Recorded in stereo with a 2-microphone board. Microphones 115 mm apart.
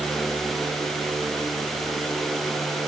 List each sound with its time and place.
Only background noise.